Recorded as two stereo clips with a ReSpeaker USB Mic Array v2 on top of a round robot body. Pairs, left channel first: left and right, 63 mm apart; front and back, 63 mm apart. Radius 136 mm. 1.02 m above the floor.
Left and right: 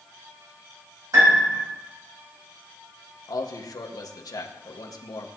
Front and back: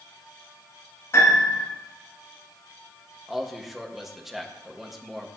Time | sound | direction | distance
1.1 | a piano | 50° right | 8 m
3.3 | a man speaking | 90° left | 2 m